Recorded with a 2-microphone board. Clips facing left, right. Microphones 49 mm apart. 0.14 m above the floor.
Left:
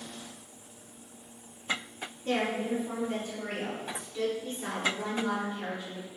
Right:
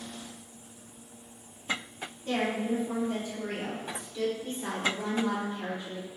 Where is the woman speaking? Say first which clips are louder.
Even; 40° left (ahead or behind), 1.7 m; by 6.1 s 5° right (ahead or behind), 1.9 m.